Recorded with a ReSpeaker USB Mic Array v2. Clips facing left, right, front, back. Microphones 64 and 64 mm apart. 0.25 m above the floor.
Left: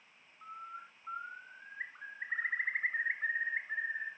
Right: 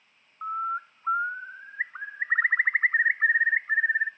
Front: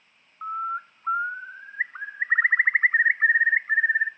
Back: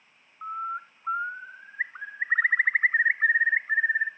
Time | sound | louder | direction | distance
0.4 | a bird | right 17 dB, front 3 dB | 70° right | 0.5 m